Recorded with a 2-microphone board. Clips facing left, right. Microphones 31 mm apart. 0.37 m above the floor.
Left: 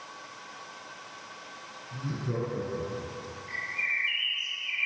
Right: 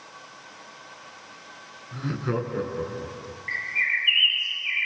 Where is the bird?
55° right (ahead or behind), 3.5 m.